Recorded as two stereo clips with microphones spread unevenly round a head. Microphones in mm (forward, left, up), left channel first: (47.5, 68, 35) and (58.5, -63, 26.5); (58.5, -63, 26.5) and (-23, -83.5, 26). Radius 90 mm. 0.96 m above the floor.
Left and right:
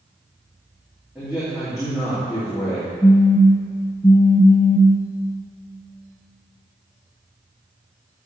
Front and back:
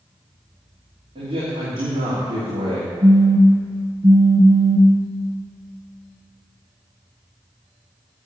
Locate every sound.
1.1 s a man speaking: 170° right, 2.5 m
3.0 s a phone buzzing: 175° right, 1.6 m